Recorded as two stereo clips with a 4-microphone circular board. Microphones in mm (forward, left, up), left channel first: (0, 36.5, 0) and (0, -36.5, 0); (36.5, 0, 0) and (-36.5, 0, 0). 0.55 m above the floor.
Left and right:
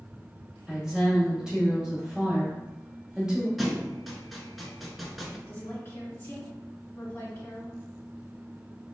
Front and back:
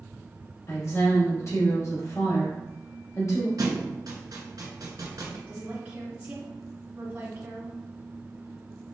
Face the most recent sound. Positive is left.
turn(degrees=125)